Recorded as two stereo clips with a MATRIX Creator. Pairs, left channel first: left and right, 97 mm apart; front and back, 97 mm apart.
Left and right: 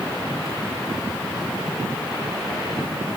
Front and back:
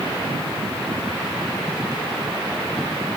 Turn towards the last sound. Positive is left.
No sound to turn to.